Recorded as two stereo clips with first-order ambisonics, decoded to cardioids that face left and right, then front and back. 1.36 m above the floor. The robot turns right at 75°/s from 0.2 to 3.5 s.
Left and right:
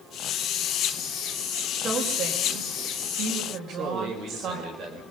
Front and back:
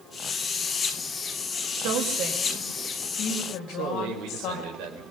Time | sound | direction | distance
1.8 | a woman speaking | 175° right | 5 m
3.7 | a man speaking | 150° right | 5.5 m